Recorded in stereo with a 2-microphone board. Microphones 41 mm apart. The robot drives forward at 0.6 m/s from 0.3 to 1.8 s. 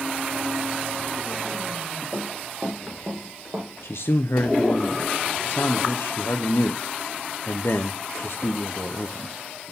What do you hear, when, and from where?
2.1 s running footsteps: 30° right (ahead or behind), 4.5 m; by 3.7 s 60° right (ahead or behind), 4 m
3.8 s a man speaking: 75° left (ahead or behind), 0.7 m